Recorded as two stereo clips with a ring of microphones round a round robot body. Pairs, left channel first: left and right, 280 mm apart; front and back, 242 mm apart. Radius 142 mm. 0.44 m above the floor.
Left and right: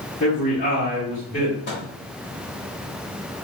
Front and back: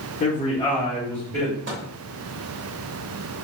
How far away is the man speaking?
About 1.5 m.